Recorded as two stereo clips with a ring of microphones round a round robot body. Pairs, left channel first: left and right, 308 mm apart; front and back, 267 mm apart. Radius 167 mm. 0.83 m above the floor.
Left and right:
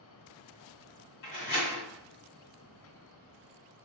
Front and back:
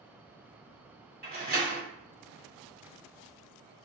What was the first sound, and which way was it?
A door slam, 125° left.